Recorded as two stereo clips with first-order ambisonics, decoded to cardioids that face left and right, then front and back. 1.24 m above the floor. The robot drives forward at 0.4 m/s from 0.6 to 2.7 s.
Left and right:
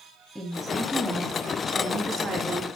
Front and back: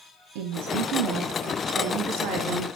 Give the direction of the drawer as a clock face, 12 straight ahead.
No drawer in this recording.